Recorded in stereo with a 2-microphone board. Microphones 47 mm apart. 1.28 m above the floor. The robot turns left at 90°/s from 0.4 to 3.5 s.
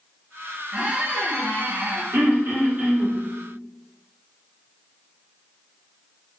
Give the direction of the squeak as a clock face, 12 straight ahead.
1 o'clock.